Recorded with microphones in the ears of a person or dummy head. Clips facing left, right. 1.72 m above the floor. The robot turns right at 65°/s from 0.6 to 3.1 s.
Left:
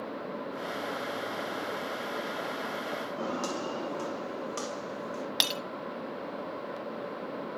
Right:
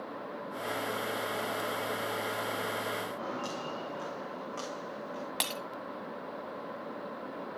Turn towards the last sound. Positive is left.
turn(degrees=20)  # may be behind; listen again after turning